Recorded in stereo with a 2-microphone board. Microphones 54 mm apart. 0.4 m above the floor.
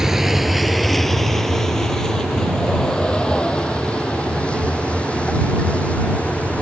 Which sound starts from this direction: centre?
A vehicle, at 0.0 s.